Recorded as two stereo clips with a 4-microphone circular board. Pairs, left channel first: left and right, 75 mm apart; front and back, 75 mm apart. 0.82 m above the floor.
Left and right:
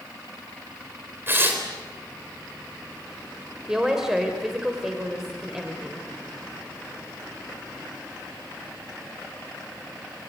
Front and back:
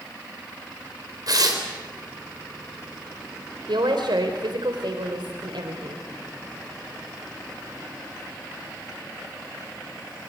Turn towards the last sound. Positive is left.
turn(degrees=-170)